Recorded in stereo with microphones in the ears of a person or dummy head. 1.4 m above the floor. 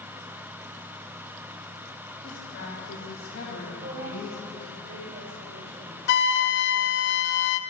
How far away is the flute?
About 0.6 m.